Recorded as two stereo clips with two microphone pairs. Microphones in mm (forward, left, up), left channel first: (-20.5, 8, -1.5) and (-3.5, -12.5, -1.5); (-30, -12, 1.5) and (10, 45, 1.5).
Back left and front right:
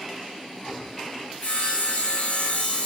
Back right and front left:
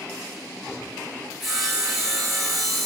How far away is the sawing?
About 6 m.